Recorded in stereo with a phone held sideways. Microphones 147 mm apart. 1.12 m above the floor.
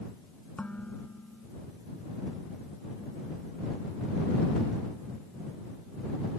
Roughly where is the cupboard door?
I don't hear a cupboard door.